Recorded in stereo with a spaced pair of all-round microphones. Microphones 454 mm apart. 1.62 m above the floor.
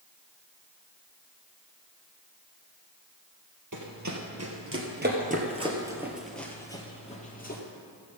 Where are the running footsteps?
40° right (ahead or behind), 2.5 m; by 7.6 s 20° left (ahead or behind), 2.5 m.